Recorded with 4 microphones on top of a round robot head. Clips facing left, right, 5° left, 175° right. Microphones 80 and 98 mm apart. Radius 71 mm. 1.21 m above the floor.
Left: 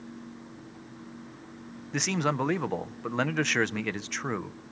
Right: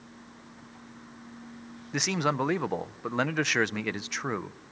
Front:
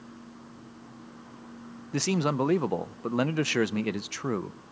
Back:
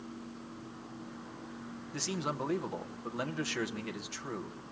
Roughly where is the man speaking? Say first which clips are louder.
Even, front 10 dB; ahead.